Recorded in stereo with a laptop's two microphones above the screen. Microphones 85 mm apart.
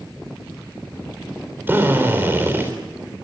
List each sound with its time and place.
1.7 s a drill: 25° right (ahead or behind), 3.5 m